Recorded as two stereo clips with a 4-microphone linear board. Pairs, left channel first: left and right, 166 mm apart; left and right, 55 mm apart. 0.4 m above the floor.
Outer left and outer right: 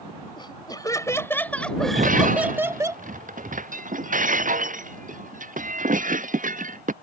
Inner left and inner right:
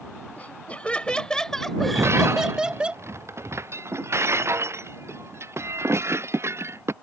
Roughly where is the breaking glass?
Right.